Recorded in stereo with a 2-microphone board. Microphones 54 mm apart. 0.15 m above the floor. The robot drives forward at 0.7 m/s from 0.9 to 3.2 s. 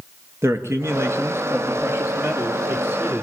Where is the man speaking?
50° right (ahead or behind), 2 m; by 3.2 s 35° right (ahead or behind), 3 m.